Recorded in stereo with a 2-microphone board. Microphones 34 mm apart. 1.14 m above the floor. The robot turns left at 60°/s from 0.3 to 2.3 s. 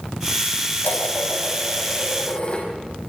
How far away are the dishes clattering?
About 5.5 m.